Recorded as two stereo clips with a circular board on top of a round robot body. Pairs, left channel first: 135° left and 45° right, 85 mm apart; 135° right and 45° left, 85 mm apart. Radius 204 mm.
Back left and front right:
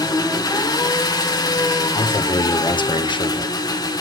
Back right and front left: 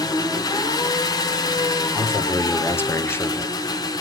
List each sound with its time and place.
0.0 s an engine running: straight behind, 1.9 m
1.9 s a man speaking: 160° left, 2 m